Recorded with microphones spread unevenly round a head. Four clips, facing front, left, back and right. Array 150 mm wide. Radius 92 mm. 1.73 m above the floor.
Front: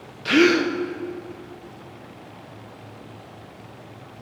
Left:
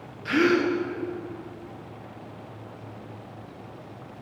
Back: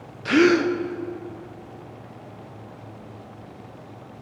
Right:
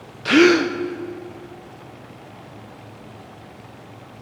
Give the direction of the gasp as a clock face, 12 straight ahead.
4 o'clock.